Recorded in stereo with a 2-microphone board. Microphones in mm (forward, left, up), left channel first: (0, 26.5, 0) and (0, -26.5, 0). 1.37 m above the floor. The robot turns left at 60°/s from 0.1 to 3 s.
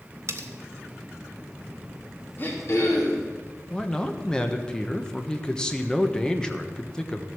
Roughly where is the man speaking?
Centre.